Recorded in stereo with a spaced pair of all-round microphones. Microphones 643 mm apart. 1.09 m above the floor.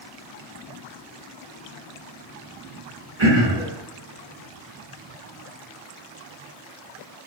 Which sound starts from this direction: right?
Throat clearing, at 3.2 s.